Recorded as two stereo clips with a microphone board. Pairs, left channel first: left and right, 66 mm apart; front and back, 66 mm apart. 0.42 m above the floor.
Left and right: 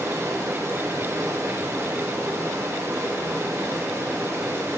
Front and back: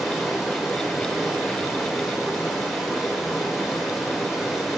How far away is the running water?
About 1.4 m.